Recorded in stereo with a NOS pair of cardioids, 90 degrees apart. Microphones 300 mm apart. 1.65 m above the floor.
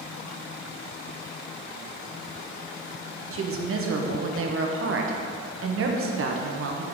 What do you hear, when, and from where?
3.3 s a woman speaking: 45° right, 1.0 m